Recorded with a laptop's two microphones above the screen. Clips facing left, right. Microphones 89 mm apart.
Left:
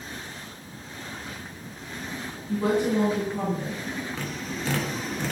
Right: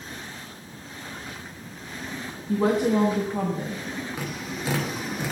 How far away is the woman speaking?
About 1.4 m.